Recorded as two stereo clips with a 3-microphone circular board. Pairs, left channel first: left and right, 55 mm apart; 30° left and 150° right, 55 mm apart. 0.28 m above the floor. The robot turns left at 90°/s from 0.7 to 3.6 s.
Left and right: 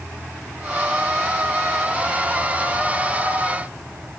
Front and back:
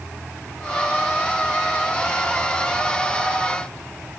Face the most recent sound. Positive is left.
No sound to turn to.